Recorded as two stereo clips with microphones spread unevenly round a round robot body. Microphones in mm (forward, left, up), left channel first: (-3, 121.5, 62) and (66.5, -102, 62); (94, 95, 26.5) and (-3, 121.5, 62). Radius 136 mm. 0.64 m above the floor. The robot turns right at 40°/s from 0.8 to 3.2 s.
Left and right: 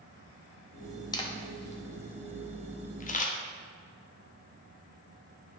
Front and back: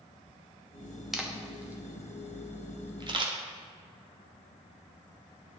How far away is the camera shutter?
About 1.2 m.